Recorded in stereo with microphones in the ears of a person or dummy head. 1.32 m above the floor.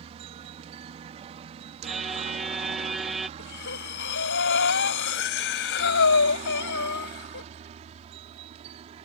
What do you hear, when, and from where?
0.0 s a helicopter: 35° right (ahead or behind)
1.8 s a violin: centre (ahead or behind)
3.4 s breathing: 65° left (ahead or behind)